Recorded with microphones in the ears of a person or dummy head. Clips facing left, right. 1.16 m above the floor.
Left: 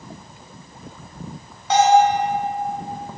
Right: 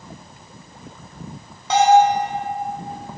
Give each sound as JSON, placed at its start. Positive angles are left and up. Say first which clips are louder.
{"t": 1.7, "sound": "a bell", "louder": "right 1 dB", "side_deg": -80, "distance_m": 2.5}